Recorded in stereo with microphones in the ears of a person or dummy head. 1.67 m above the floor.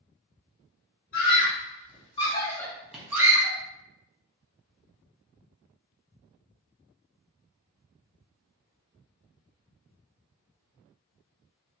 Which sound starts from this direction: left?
A scream, at 1.1 s.